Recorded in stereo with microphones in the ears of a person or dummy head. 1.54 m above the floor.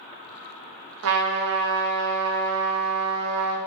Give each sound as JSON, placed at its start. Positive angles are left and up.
{"t": 1.0, "sound": "a trumpet", "side_deg": -65, "distance_m": 0.7}